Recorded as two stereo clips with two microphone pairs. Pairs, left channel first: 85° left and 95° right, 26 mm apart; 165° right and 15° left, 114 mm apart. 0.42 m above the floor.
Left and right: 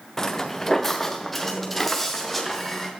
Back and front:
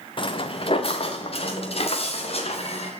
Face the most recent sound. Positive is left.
turn(degrees=170)